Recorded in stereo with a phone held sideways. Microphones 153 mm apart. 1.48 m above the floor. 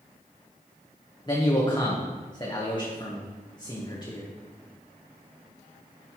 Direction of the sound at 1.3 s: 30° left (ahead or behind).